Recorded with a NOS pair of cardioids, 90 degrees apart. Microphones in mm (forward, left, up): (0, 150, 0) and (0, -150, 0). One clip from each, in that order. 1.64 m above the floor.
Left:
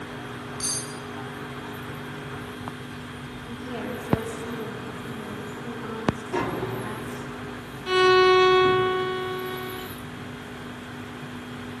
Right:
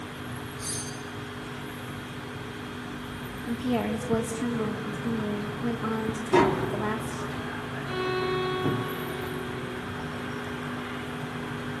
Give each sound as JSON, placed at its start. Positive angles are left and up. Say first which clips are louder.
{"t": 0.6, "sound": "cutlery clinking", "louder": "left 6 dB", "azimuth_deg": 70, "distance_m": 6.5}
{"t": 3.5, "sound": "a woman speaking", "louder": "right 5 dB", "azimuth_deg": -50, "distance_m": 3.5}
{"t": 6.3, "sound": "tapping", "louder": "right 5 dB", "azimuth_deg": -45, "distance_m": 3.5}
{"t": 7.9, "sound": "a violin", "louder": "left 12 dB", "azimuth_deg": 55, "distance_m": 0.5}